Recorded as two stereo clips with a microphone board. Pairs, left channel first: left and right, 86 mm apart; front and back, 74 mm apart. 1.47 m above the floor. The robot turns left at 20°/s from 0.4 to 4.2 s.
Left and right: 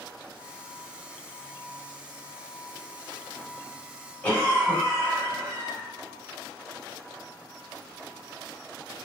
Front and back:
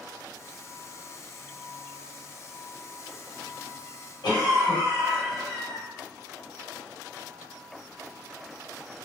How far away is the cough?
About 1.4 m.